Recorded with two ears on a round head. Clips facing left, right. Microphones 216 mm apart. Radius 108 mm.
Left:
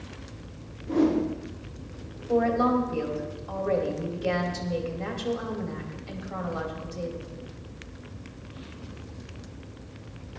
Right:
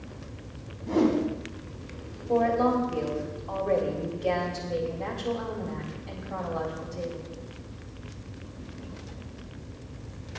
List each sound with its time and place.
0.9 s a whoosh: 70° right (ahead or behind), 4 m
2.3 s a woman speaking: 15° left (ahead or behind), 2 m